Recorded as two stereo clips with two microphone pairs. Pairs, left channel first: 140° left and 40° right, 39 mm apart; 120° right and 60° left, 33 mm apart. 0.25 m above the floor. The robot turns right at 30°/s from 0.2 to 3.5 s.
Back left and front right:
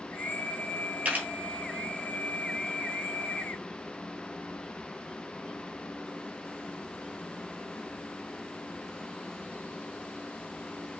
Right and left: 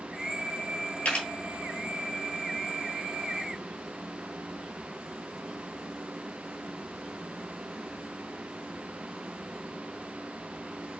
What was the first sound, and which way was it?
A camera shutter, 80° right.